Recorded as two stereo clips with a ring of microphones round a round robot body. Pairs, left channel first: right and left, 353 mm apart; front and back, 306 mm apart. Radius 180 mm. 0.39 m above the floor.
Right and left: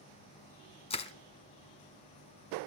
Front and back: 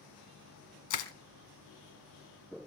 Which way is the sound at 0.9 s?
15° right.